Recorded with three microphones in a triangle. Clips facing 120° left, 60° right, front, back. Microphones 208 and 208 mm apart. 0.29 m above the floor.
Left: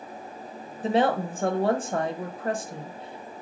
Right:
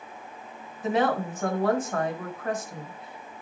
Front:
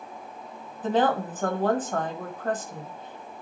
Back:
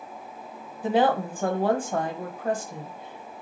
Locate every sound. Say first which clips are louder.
0.8 s a woman speaking: left 2 dB, back 1 dB; 110° left, 1.2 m